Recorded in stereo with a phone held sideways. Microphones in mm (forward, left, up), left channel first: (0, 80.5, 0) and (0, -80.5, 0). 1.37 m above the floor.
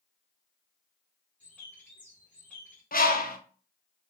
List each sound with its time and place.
1.4 s a bird: 10° left (ahead or behind), 1.5 m
2.9 s a bird: 60° left (ahead or behind), 0.6 m